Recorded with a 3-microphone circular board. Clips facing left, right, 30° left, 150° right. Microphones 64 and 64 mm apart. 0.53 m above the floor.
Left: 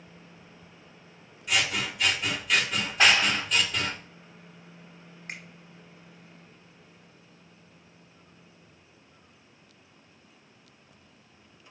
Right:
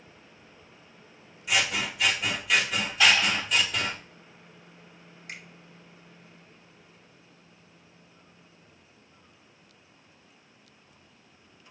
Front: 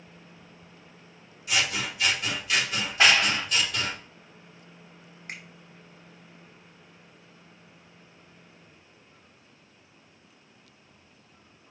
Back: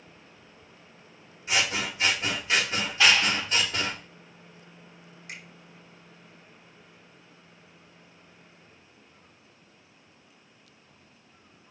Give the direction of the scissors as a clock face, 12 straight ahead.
6 o'clock.